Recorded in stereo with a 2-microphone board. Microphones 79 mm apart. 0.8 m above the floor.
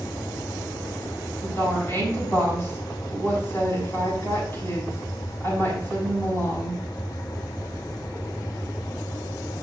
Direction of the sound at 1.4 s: 35° left (ahead or behind).